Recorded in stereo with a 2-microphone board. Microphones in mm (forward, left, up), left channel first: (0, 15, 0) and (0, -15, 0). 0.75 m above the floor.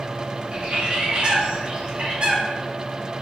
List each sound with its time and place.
0.5 s a bird: 40° right (ahead or behind), 0.9 m